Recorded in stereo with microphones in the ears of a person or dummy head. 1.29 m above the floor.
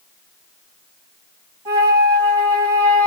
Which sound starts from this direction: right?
A flute, at 1.6 s.